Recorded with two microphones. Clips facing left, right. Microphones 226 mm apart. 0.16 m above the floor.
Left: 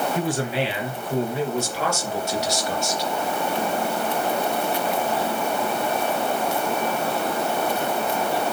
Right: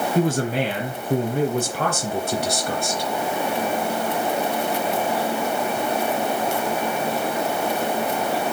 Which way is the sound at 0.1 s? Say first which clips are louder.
Right 3 dB; 45° right (ahead or behind).